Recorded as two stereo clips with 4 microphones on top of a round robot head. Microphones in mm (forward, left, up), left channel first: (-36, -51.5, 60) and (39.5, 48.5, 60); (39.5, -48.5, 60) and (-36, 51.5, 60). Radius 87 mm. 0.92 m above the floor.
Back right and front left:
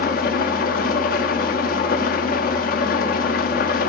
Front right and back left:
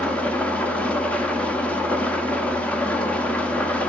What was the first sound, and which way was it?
An engine running, 135° right.